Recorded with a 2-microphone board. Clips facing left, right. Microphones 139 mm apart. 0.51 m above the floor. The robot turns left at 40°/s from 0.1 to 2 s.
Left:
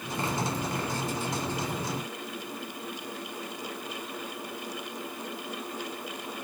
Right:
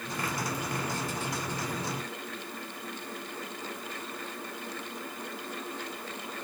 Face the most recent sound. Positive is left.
No sound to turn to.